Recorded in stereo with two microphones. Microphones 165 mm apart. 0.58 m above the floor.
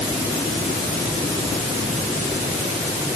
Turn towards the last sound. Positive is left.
No sound to turn to.